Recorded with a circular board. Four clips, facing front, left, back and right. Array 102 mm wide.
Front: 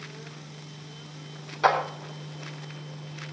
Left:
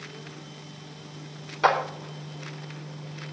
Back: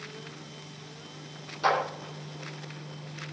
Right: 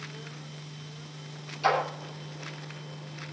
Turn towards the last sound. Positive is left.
turn(degrees=60)